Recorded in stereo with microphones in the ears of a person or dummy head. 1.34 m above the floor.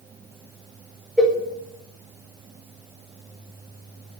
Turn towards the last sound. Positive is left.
turn(degrees=0)  # may be behind; listen again after turning